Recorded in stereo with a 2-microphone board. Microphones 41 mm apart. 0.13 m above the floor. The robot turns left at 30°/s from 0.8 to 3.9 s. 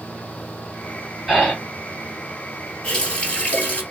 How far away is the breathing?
About 2 m.